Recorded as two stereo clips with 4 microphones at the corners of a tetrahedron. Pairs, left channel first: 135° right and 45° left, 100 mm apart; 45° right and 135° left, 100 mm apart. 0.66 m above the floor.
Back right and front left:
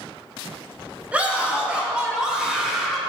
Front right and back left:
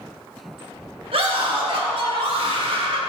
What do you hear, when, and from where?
1.1 s a scream: 120° left, 3.5 m; by 3.0 s 130° left, 2.5 m